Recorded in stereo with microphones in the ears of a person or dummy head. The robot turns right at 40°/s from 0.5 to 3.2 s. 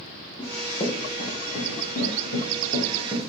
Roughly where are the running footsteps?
Left.